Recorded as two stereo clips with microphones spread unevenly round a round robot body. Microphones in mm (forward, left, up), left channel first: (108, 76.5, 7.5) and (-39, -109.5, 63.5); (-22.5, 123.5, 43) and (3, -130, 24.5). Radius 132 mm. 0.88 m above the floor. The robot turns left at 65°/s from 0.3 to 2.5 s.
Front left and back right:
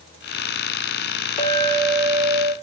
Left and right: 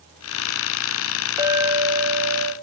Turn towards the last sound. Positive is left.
turn(degrees=-80)